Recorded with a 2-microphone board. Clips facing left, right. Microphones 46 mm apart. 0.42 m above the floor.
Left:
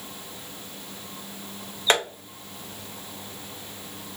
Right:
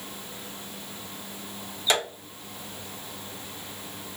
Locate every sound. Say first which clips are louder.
1.9 s tapping: left 3 dB; 45° left (ahead or behind), 1.5 m